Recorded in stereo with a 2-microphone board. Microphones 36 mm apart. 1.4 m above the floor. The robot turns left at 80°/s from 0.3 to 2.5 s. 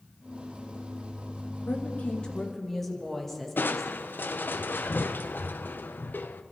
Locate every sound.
1.7 s a woman speaking: 75° left, 2 m; by 4.1 s 10° left, 2 m
3.6 s crushing: 70° left (ahead or behind), 0.6 m